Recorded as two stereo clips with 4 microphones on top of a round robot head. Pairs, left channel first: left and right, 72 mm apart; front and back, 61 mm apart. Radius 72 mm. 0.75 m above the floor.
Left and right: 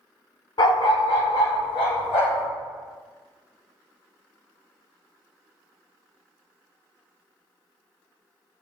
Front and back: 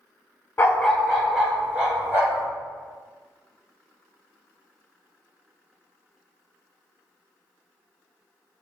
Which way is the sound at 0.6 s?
65° left.